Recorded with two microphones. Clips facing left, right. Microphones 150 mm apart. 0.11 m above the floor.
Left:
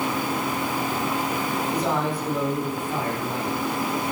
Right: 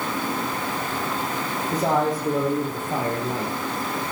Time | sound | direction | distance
1.7 | a man speaking | 45° right (ahead or behind) | 3.5 m